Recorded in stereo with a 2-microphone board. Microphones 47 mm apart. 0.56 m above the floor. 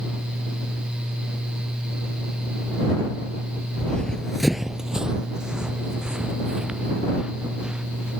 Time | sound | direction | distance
3.8 | running footsteps | 15° left (ahead or behind) | ?